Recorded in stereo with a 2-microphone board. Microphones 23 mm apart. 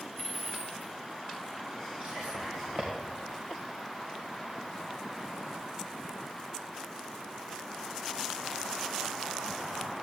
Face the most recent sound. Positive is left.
turn(degrees=-70)  # may be behind; listen again after turning